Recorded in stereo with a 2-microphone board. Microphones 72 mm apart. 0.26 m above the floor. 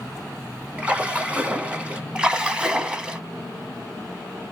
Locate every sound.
0.8 s a splash: 15° right (ahead or behind), 0.9 m
2.1 s a splash: 15° right (ahead or behind), 0.7 m